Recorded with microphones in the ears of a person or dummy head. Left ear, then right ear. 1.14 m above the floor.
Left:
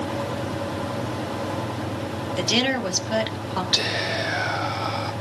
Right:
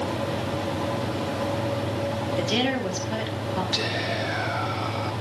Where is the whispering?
15° left (ahead or behind), 1.2 m.